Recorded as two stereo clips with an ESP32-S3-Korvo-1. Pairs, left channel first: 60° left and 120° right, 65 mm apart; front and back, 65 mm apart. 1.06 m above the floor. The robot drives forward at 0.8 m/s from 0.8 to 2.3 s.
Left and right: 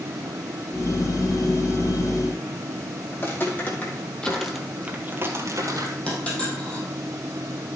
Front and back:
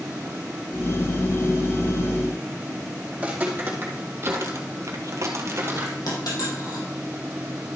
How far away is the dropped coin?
About 4 m.